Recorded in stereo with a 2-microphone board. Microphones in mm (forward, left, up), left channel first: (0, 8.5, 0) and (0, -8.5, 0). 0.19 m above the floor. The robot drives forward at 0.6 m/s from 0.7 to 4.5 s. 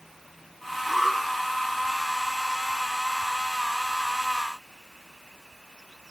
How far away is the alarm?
About 4.5 m.